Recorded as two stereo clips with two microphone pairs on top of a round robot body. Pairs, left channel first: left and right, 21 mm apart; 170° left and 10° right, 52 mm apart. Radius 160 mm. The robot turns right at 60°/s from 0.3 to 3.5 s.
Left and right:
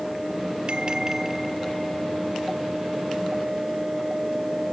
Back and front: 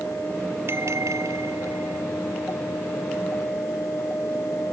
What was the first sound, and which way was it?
A bell, 50° right.